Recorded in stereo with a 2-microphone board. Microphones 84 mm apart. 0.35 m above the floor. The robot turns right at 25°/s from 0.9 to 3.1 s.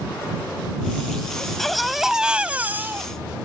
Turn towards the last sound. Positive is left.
turn(degrees=-145)